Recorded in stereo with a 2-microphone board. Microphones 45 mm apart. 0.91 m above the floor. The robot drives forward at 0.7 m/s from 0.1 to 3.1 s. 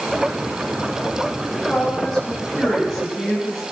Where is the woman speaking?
10° left (ahead or behind), 6.5 m.